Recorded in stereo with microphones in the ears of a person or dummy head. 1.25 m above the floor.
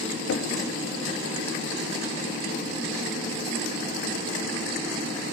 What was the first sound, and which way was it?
Knocking, 75° left (ahead or behind).